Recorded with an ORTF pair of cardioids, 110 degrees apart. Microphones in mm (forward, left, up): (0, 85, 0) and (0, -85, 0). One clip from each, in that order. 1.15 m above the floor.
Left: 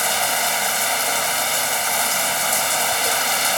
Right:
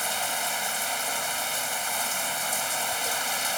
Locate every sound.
0.0 s running water: 45° left